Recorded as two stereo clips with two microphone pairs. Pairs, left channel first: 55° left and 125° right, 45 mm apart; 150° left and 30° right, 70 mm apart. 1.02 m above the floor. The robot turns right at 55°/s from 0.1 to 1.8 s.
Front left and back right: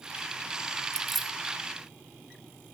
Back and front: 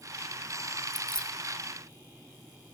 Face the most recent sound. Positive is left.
turn(degrees=175)